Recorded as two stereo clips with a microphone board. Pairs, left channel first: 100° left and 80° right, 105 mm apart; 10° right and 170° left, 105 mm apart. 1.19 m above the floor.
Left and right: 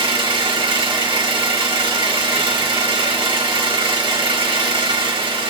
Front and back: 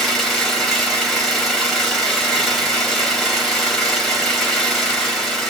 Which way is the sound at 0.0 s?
100° right.